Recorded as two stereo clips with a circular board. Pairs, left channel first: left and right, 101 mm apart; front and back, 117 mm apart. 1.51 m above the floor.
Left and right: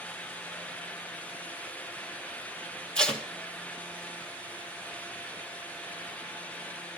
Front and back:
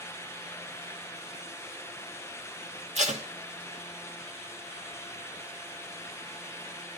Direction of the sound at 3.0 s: 170° left.